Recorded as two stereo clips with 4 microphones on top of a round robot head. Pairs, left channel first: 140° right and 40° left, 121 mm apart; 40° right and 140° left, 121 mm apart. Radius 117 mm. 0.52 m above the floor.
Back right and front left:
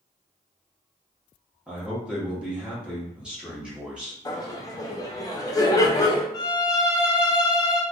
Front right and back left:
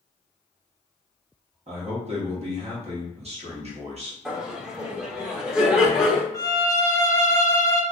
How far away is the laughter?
About 0.7 m.